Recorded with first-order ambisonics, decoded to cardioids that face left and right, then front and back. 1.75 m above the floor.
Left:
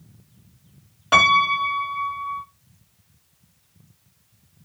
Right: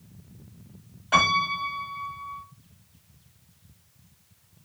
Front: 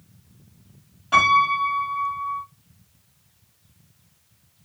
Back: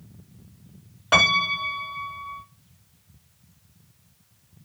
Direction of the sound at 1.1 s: 135° left.